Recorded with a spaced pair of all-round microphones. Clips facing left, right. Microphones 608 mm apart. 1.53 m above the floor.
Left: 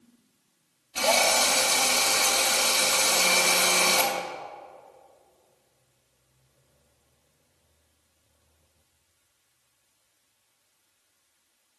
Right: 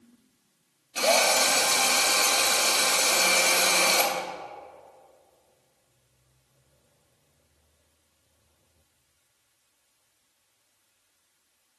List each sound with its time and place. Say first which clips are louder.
0.9 s a drill: right 1 dB; 25° left (ahead or behind), 1.1 m